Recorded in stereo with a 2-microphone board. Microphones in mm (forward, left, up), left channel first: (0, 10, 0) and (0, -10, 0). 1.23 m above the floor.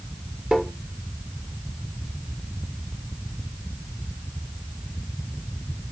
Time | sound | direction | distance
0.5 | tapping | 60° right (ahead or behind) | 1.0 m